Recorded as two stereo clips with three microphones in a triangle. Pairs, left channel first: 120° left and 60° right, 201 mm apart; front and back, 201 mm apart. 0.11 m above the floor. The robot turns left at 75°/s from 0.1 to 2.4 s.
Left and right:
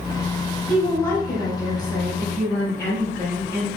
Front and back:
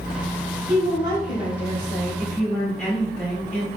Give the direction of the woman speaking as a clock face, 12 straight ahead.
5 o'clock.